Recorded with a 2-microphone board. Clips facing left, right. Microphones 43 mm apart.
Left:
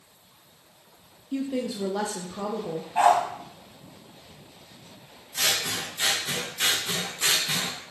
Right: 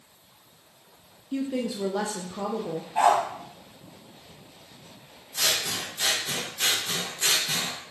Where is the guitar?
I don't hear a guitar.